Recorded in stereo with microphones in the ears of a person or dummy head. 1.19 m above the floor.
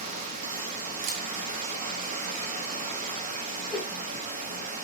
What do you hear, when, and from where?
0.0 s running water: 40° right (ahead or behind), 0.8 m
1.0 s a camera shutter: 45° right (ahead or behind), 0.9 m
3.7 s a whoosh: 5° left (ahead or behind), 1.1 m